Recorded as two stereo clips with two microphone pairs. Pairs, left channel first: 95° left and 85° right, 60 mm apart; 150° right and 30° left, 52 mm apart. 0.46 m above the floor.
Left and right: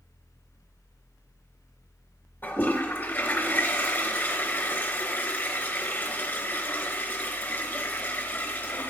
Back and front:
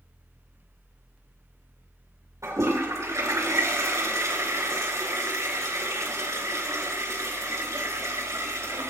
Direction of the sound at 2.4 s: 40° left.